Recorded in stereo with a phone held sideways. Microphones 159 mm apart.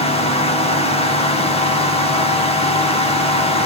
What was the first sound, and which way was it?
A fan, 40° left (ahead or behind).